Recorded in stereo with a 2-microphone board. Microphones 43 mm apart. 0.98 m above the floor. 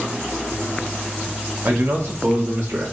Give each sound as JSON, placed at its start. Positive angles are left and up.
{"t": 1.6, "sound": "a man speaking", "side_deg": -50, "distance_m": 1.0}